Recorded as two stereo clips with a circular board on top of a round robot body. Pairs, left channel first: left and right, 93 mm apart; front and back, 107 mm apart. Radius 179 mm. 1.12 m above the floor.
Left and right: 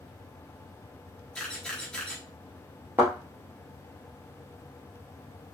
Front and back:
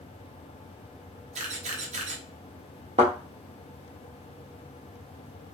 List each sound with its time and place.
1.4 s a camera shutter: 170° left, 0.7 m
3.0 s a thud: 155° right, 0.5 m